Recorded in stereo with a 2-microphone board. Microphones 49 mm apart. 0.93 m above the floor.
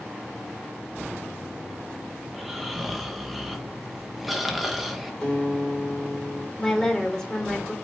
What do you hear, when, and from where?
2.3 s snoring: 5° right (ahead or behind), 1.0 m
5.2 s a guitar: 15° left (ahead or behind), 2.5 m
6.6 s a woman speaking: 15° left (ahead or behind), 3 m